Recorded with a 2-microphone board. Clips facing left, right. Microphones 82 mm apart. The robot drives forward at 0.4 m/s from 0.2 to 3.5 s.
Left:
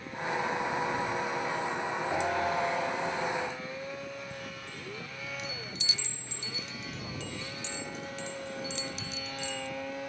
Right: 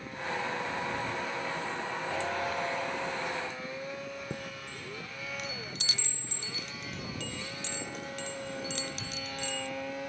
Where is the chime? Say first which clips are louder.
Right 1 dB; 70° right (ahead or behind).